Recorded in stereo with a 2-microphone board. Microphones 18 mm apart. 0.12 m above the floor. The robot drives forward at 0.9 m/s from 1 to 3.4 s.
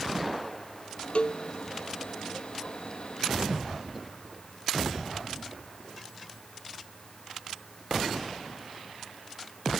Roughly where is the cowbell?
Left.